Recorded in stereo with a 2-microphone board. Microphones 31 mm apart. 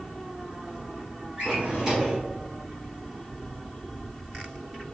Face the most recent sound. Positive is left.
turn(degrees=-25)  # may be behind; listen again after turning